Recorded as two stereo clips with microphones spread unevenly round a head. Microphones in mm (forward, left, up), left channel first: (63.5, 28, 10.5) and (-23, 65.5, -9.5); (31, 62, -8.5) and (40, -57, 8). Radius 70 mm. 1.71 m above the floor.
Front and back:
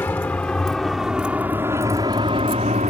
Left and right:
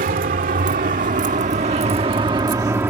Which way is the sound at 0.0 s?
95° right.